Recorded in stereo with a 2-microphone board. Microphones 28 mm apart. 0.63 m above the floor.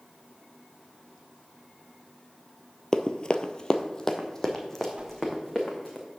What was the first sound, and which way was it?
Running footsteps, 25° left (ahead or behind).